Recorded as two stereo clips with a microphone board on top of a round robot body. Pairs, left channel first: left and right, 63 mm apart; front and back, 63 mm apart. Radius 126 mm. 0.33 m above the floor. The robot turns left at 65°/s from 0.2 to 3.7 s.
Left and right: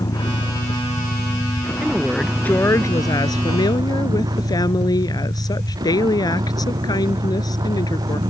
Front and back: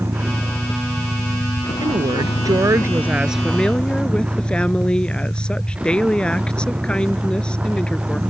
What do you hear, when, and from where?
0.0 s a vehicle: 120° left; by 8.3 s 105° right
1.8 s a woman speaking: 160° right; by 8.2 s 75° left